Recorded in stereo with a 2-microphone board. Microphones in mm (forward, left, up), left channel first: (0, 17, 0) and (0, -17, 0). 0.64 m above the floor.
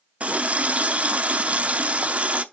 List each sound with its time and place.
0.2 s a running tap: 40° right (ahead or behind), 0.6 m